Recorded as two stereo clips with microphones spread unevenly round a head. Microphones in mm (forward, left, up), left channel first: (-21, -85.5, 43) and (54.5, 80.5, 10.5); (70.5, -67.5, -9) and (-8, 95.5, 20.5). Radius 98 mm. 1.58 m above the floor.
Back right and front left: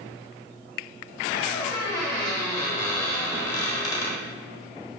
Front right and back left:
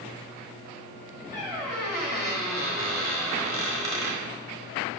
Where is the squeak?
Straight behind, 1.8 m.